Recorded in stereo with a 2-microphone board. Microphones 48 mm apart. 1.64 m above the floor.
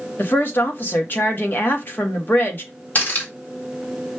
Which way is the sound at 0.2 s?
40° left (ahead or behind).